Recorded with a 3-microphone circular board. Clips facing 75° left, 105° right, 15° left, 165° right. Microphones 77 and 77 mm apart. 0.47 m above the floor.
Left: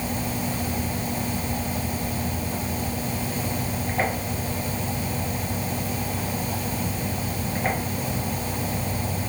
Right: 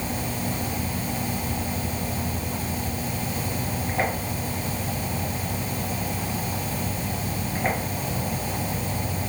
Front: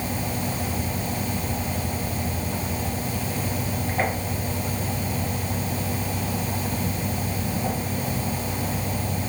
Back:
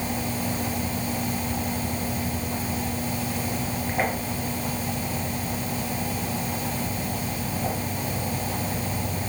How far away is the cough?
I don't hear a cough.